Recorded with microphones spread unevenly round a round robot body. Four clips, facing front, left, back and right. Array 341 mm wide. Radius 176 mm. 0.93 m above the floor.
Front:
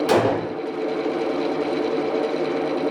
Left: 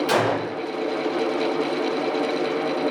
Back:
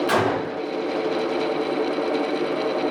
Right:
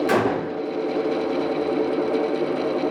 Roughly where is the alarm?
No alarm in this recording.